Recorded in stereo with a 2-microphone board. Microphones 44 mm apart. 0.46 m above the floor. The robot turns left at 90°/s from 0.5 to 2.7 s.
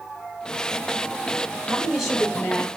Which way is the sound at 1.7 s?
145° right.